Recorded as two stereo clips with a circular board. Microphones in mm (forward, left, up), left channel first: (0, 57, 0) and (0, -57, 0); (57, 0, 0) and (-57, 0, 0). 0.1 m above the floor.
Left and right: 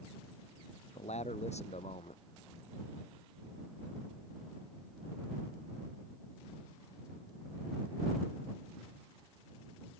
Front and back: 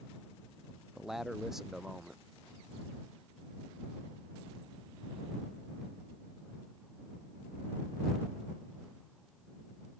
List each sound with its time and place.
0.9 s a man speaking: 95° left